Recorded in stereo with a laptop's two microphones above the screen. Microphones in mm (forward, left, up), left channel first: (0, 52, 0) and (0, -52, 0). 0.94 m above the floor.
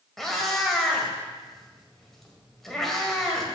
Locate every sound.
0.2 s a cat meowing: 5° left (ahead or behind), 1.7 m